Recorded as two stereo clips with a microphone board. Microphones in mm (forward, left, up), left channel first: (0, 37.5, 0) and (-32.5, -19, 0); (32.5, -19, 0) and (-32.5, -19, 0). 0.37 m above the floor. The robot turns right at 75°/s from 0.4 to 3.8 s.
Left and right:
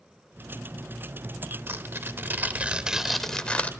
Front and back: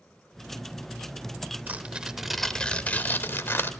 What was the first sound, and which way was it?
Tearing paper, 140° right.